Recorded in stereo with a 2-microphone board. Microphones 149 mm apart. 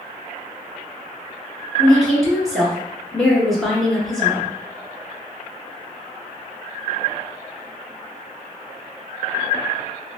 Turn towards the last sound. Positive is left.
turn(degrees=0)  # may be behind; listen again after turning